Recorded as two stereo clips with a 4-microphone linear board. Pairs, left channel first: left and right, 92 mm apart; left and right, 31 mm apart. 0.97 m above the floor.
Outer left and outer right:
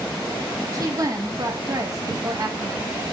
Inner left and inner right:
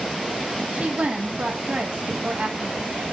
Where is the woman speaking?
40° right (ahead or behind), 1.4 m.